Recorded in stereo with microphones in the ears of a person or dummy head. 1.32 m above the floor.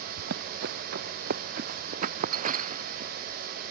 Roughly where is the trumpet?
I don't hear a trumpet.